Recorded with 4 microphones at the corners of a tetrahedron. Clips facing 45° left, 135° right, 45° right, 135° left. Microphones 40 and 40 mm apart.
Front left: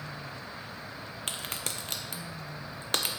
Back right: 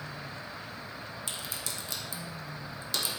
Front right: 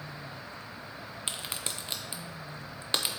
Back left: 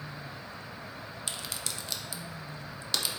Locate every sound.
1.3 s a crack: 15° left, 0.7 m